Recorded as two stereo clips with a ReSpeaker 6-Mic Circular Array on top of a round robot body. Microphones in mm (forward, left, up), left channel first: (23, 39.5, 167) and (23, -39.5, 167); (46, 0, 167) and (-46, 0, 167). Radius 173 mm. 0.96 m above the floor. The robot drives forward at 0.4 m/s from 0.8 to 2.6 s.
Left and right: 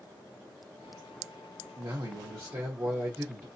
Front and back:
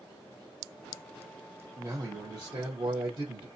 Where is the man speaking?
120° right, 0.7 m; by 3.5 s 135° right, 0.9 m.